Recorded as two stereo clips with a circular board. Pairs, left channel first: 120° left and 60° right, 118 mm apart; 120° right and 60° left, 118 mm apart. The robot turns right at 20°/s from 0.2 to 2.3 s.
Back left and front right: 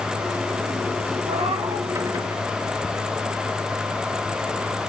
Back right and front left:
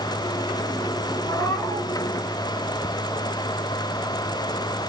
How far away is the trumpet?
I don't hear a trumpet.